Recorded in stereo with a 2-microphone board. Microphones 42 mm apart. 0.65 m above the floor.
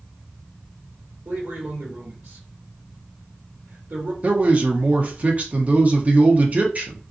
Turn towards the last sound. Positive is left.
turn(degrees=-35)  # may be behind; listen again after turning